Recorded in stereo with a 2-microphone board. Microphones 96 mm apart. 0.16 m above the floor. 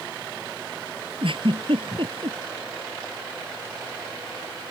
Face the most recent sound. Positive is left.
turn(degrees=-65)  # may be behind; listen again after turning